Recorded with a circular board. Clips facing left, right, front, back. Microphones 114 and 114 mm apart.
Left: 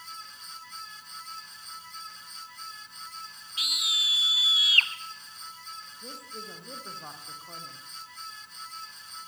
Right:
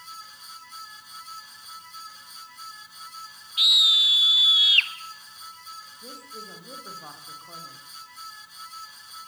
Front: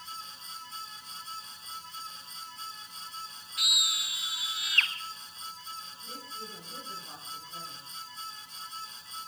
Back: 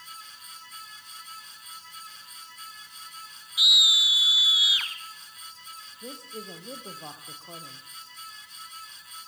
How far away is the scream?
About 1.4 m.